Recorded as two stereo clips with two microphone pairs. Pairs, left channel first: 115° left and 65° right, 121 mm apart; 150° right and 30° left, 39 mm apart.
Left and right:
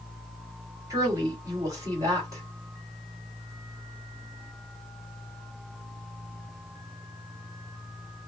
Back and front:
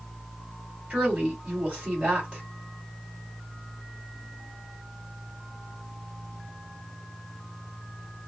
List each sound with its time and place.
0.9 s a woman speaking: 5° right, 2.5 m